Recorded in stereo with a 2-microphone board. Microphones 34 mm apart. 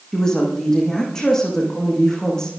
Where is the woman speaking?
20° left (ahead or behind), 7 m.